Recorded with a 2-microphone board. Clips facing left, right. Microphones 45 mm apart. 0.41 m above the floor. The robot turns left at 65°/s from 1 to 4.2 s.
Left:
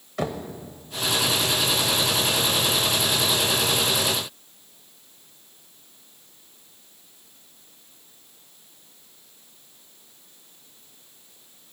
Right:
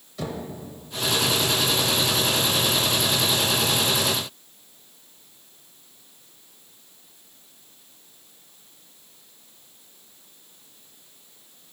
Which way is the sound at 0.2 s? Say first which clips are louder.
Left 3 dB; 55° left (ahead or behind).